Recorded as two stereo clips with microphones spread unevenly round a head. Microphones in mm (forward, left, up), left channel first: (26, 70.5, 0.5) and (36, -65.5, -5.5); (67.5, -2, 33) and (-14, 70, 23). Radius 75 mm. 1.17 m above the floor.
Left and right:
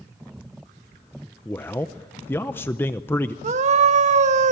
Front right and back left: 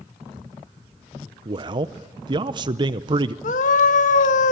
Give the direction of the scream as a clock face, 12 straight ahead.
2 o'clock.